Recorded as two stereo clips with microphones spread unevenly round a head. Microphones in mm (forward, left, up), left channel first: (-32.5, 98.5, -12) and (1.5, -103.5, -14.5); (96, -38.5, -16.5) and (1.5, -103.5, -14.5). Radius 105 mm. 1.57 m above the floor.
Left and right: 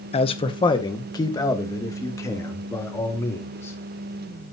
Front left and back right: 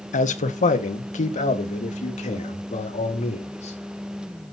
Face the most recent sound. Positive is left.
turn(degrees=20)